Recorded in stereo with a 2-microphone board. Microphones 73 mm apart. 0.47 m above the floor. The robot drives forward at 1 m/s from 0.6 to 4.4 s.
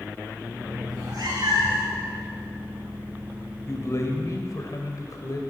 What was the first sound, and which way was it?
A cat meowing, 60° right (ahead or behind).